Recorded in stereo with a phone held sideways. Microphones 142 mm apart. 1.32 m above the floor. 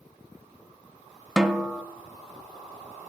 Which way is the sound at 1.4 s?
5° right (ahead or behind).